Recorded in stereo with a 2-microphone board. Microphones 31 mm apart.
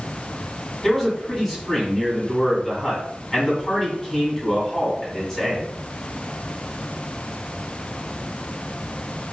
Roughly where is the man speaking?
Centre.